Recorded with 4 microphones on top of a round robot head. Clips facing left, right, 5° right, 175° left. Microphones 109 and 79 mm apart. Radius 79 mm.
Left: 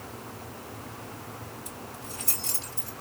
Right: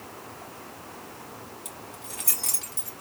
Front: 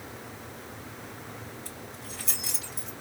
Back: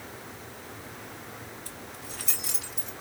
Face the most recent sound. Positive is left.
turn(degrees=-70)